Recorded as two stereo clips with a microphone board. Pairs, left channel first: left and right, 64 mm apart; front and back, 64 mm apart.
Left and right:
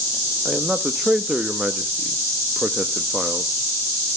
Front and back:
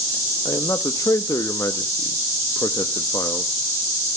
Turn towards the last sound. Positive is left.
turn(degrees=-15)